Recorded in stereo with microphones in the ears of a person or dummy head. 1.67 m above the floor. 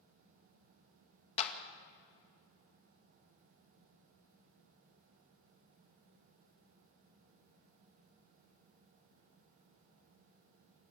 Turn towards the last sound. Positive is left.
turn(degrees=35)  # may be behind; listen again after turning